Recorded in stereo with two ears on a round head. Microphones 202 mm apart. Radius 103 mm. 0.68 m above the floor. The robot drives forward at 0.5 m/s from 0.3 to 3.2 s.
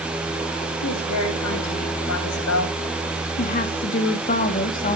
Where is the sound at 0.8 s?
80° left, 4 m; by 2.8 s 75° left (ahead or behind), 4 m.